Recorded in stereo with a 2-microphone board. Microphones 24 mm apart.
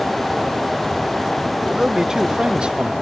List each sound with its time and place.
1.6 s a man speaking: 20° right (ahead or behind); by 2.9 s 45° right (ahead or behind)